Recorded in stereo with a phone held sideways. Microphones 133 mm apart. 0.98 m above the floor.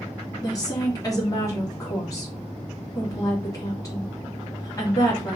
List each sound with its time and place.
0.4 s a woman speaking: 25° left (ahead or behind), 1.8 m